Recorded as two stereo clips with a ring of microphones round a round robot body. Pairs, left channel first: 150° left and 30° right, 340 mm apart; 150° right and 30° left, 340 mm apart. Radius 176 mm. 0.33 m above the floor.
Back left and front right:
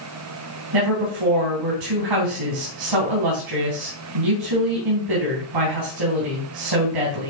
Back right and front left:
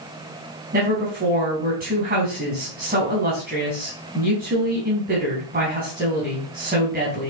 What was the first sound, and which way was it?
A woman speaking, 35° right.